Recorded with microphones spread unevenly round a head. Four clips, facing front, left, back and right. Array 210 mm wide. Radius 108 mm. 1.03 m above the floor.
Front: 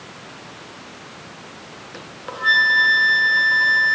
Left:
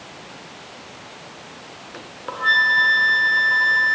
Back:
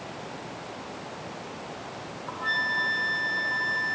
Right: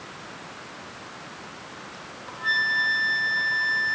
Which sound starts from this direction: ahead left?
A flute, at 1.9 s.